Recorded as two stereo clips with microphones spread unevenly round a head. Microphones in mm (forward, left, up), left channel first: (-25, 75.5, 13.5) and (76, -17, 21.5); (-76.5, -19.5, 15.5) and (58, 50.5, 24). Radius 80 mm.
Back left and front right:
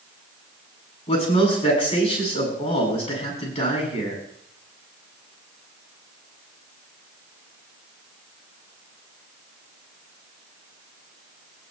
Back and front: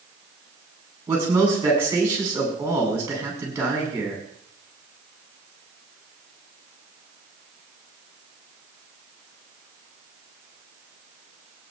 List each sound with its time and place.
1.1 s a man speaking: 100° left, 9.5 m